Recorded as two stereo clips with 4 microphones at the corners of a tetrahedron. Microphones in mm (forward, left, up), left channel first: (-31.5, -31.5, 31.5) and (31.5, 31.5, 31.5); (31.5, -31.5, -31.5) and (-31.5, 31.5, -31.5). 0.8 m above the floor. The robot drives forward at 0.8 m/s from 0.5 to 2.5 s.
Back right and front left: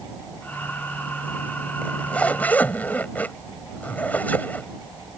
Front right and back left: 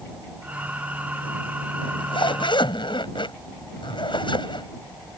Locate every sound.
1.8 s a zipper: 60° right; by 4.7 s 65° right